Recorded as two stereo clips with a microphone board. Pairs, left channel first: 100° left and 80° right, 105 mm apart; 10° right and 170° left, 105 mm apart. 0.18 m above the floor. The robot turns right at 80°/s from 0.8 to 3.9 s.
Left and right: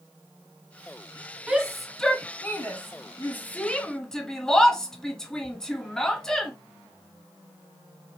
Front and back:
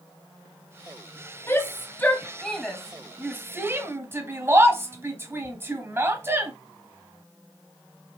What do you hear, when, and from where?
1.5 s a shout: 20° right, 1.5 m; by 6.5 s 175° left, 1.5 m